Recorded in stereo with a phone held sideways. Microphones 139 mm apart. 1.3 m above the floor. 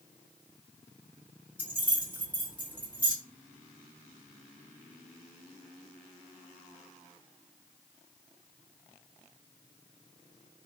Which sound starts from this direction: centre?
Keys jangling, at 1.6 s.